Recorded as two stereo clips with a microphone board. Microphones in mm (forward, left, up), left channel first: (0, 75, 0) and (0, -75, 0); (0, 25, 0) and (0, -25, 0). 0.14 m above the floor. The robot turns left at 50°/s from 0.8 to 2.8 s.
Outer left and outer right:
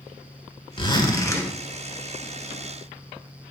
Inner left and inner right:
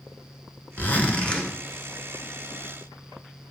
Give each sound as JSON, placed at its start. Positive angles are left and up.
{"t": 0.8, "sound": "a zipper", "azimuth_deg": 55, "distance_m": 1.0}